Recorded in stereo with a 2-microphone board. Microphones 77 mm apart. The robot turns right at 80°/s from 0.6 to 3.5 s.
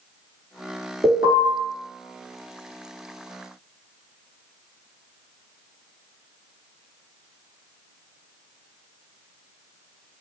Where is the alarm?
50° right, 1.4 m; by 1.4 s 20° right, 1.4 m.